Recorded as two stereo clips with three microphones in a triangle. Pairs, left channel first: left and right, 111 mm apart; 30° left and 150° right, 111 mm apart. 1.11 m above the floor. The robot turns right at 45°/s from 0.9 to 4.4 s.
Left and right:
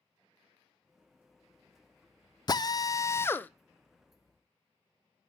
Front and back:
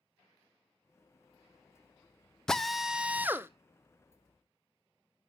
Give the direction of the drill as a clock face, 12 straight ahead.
8 o'clock.